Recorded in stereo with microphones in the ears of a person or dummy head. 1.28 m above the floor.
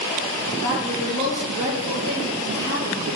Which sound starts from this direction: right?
A woman speaking, at 0.6 s.